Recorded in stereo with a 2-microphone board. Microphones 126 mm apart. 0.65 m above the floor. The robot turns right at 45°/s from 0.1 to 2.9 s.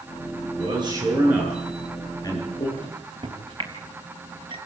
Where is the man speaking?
55° right (ahead or behind), 9.5 m; by 2.7 s 45° left (ahead or behind), 9.5 m.